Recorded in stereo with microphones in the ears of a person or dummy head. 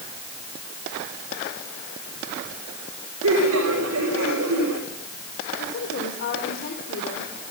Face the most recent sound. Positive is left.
turn(degrees=50)  # may be behind; listen again after turning